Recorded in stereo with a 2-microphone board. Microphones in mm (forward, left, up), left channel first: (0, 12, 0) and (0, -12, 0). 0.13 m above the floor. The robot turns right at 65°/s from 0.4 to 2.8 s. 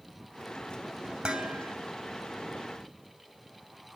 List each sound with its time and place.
1.2 s dishes clattering: 130° right, 2.5 m; by 1.8 s 100° right, 2.5 m